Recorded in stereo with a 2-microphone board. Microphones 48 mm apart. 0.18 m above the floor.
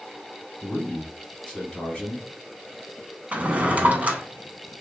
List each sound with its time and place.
0.6 s a man speaking: 20° left (ahead or behind), 1.2 m
3.3 s a drawer: 30° right (ahead or behind), 0.5 m